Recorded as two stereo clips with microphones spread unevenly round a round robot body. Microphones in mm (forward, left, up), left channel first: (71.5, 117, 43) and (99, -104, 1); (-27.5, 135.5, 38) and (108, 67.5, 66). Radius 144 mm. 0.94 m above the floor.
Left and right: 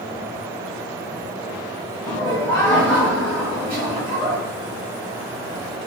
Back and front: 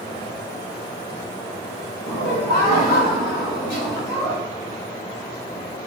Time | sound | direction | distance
2.0 | laughter | 175° left | 4 m